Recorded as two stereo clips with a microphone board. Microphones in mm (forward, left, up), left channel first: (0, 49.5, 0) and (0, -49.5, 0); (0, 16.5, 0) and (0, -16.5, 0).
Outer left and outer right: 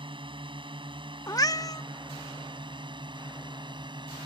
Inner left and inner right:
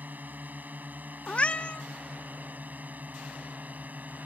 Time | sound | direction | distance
0.0 | a drone | 60° right (ahead or behind) | ?
1.3 | a cat meowing | 35° left (ahead or behind) | ?